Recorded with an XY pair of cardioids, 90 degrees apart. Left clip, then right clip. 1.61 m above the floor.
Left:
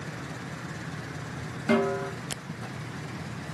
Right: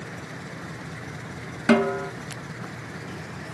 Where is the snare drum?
55° right, 1.7 m.